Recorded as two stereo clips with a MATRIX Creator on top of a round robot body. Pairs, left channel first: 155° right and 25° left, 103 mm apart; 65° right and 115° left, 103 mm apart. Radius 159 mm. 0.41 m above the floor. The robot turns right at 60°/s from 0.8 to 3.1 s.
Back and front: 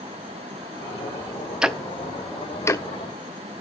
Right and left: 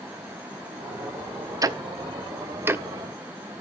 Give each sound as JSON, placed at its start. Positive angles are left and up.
{"t": 1.6, "sound": "ticking", "azimuth_deg": 100, "distance_m": 0.9}